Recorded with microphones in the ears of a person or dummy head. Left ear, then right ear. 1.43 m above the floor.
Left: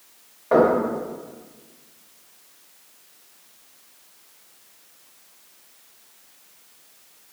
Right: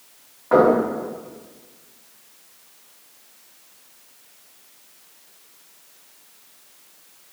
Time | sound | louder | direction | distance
0.5 | knocking | right 2 dB | 10° left (ahead or behind) | 2.0 m